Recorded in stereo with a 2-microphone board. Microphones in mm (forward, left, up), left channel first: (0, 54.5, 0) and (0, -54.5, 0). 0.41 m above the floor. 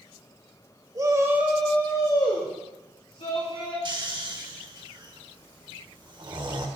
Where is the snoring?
40° right (ahead or behind), 0.9 m.